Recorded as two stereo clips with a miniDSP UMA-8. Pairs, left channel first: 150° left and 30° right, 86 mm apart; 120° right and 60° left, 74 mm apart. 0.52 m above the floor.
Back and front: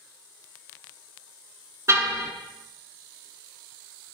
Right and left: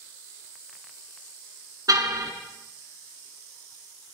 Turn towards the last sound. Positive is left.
turn(degrees=25)